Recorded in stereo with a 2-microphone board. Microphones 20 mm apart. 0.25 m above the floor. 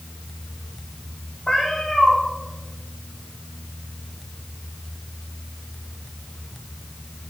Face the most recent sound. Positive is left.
turn(degrees=50)  # may be behind; listen again after turning